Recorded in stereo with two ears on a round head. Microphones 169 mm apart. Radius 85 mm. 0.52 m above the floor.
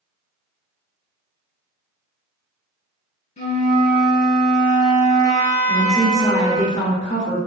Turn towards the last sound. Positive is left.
turn(degrees=20)  # may be behind; listen again after turning